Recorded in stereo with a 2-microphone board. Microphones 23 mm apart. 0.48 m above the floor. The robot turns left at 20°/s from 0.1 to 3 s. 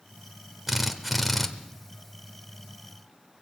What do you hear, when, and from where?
0.7 s a drill: 10° right (ahead or behind), 1.2 m; by 1.5 s 5° left (ahead or behind), 1.2 m